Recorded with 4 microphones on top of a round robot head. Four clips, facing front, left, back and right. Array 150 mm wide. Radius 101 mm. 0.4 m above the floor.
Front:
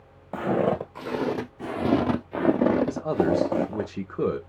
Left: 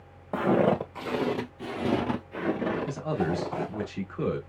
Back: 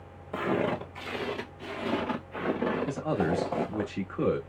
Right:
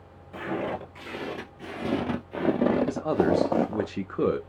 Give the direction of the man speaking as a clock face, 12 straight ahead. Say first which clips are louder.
Right 6 dB, front 5 dB; 3 o'clock.